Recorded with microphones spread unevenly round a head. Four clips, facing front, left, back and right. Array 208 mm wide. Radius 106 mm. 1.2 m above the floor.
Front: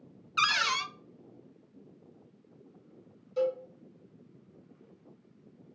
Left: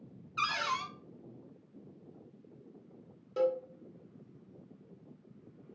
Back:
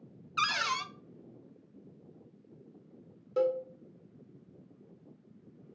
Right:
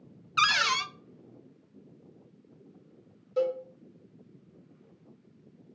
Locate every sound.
0.4 s a cupboard door: 80° right, 0.5 m
3.4 s a cowbell: 165° left, 1.4 m